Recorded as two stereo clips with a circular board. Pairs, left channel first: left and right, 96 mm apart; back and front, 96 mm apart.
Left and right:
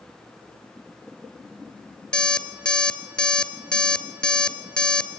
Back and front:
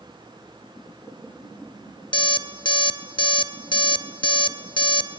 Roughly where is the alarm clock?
Behind.